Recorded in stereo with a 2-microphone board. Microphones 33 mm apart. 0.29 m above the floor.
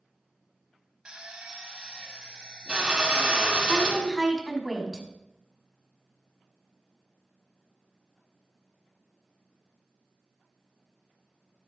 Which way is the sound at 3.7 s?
5° right (ahead or behind).